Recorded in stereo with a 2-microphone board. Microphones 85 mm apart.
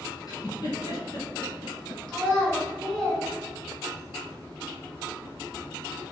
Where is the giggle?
50° left (ahead or behind), 1.0 m.